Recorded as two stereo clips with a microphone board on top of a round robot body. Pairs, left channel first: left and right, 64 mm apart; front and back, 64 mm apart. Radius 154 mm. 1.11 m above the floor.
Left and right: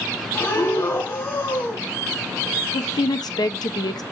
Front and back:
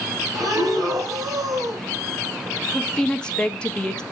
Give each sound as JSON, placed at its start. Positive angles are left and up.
{"t": 0.3, "sound": "breathing", "azimuth_deg": 145, "distance_m": 2.0}
{"t": 2.7, "sound": "a woman speaking", "azimuth_deg": 80, "distance_m": 1.1}